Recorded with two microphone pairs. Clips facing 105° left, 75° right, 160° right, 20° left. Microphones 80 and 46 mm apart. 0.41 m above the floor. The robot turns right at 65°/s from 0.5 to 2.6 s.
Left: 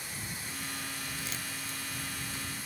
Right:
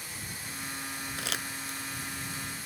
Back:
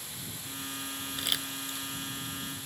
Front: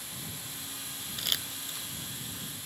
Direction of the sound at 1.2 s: 85° right.